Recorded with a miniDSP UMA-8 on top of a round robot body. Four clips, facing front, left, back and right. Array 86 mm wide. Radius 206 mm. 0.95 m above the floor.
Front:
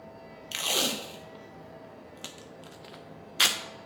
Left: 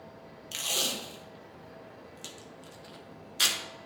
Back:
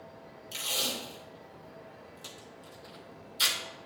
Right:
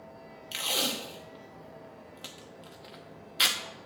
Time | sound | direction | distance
0.5 | tape being pulled | 15° right | 0.5 m